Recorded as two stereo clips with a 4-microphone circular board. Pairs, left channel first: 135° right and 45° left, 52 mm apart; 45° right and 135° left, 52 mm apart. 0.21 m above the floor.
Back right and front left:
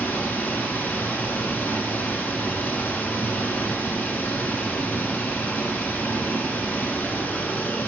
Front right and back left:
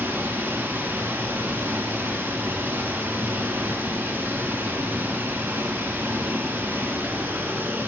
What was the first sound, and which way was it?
Running water, straight behind.